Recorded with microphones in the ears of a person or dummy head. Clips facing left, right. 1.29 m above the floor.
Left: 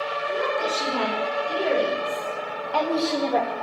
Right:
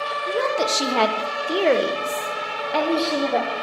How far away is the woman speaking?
About 2.5 m.